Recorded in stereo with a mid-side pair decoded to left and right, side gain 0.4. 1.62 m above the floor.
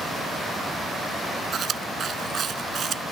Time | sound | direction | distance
1.5 | chewing | 60° right | ?